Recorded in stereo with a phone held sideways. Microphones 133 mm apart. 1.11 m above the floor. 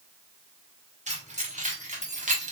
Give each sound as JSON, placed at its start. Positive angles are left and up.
{"t": 1.1, "sound": "keys jangling", "side_deg": -65, "distance_m": 1.8}